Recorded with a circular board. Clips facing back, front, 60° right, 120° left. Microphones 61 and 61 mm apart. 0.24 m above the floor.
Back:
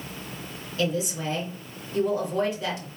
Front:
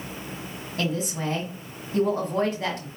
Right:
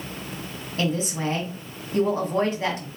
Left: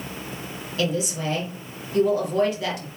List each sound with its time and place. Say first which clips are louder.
0.8 s a woman speaking: back 1 dB, even; 15° right, 1.7 m